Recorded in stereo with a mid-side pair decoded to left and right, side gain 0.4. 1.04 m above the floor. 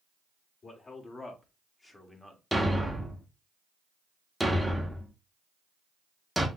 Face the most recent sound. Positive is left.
turn(degrees=-5)